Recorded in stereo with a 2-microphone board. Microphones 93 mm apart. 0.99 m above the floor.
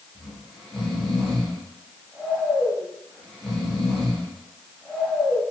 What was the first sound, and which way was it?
Snoring, 10° left (ahead or behind).